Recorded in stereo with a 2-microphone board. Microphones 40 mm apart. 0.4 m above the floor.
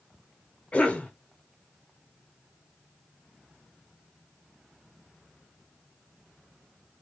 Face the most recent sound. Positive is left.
turn(degrees=30)  # may be behind; listen again after turning